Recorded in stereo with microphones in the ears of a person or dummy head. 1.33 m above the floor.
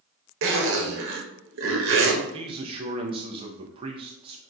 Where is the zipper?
65° right (ahead or behind), 1.0 m.